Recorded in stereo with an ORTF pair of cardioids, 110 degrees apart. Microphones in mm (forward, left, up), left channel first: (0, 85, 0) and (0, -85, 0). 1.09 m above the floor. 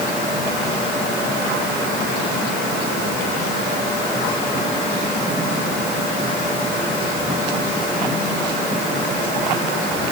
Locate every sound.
Only background noise.